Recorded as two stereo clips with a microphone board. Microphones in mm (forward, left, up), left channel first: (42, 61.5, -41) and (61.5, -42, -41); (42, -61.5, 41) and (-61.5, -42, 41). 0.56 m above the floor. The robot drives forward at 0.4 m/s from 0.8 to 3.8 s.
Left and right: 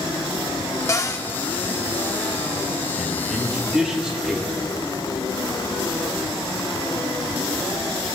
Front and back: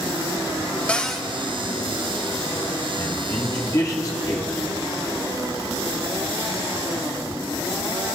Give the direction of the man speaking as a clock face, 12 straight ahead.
12 o'clock.